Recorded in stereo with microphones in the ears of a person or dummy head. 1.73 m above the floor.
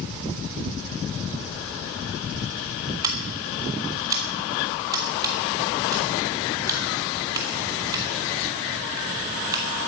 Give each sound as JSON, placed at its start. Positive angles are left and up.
{"t": 3.0, "sound": "scissors", "side_deg": -15, "distance_m": 1.9}